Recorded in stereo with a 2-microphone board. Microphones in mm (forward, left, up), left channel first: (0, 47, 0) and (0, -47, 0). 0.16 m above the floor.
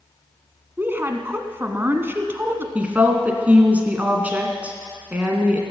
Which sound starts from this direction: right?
A woman speaking, at 0.8 s.